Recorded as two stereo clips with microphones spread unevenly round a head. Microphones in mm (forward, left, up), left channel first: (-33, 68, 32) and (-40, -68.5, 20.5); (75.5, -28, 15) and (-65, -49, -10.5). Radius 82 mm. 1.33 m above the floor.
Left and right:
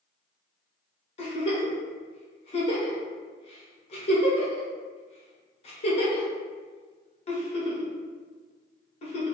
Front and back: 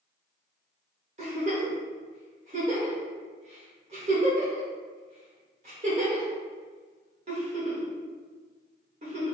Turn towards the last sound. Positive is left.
turn(degrees=130)